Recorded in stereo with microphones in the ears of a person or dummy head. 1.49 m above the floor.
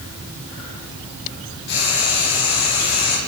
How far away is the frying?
About 7.5 m.